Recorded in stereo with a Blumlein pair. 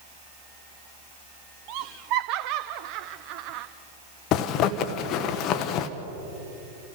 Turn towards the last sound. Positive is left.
turn(degrees=35)